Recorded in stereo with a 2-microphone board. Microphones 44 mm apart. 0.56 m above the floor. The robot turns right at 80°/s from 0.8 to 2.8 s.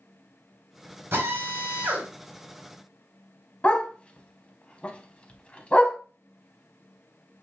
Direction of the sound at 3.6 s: 30° left (ahead or behind).